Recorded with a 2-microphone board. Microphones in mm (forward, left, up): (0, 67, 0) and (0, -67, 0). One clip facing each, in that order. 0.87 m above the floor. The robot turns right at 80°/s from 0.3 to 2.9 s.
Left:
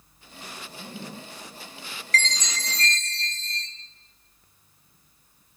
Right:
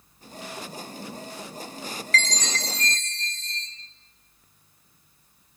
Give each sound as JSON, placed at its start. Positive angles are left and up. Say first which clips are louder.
{"t": 0.7, "sound": "a zipper", "louder": "right 2 dB", "azimuth_deg": 50, "distance_m": 4.5}
{"t": 2.1, "sound": "a chime", "louder": "even", "azimuth_deg": 140, "distance_m": 3.0}